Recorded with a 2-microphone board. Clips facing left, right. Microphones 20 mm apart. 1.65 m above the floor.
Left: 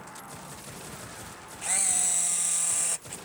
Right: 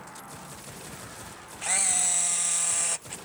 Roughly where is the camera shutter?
Centre.